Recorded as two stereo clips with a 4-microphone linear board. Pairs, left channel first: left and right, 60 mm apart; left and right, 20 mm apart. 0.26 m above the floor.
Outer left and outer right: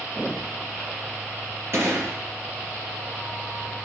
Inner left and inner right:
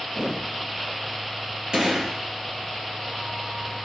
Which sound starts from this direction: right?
A gunshot, at 1.7 s.